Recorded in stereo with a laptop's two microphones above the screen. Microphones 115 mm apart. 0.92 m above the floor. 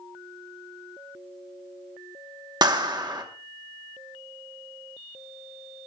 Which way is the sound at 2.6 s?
40° right (ahead or behind).